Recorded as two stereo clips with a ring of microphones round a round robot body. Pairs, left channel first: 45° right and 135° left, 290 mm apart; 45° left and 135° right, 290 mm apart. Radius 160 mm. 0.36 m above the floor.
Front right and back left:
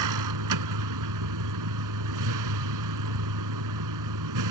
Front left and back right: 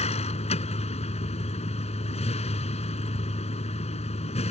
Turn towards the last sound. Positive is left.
turn(degrees=115)